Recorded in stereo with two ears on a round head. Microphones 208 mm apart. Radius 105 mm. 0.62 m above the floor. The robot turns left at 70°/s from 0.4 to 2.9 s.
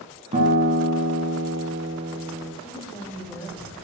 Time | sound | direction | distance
0.3 | a guitar | 30° right | 1.6 m
2.6 | a woman speaking | 25° left (ahead or behind) | 2.5 m